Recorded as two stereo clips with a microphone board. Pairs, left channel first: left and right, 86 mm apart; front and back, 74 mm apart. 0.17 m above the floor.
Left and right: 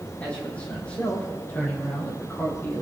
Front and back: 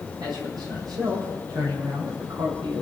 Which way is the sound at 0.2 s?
165° left.